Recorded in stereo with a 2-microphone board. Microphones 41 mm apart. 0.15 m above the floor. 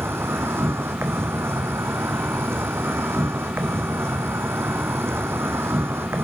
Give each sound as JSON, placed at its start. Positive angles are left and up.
{"t": 0.0, "sound": "an insect", "side_deg": -80, "distance_m": 1.1}